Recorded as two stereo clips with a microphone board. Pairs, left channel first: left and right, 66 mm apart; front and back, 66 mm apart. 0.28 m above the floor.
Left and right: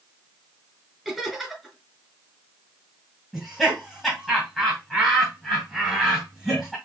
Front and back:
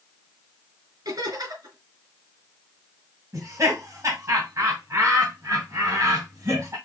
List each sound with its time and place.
1.1 s laughter: 175° right, 2.5 m
3.3 s laughter: 175° right, 2 m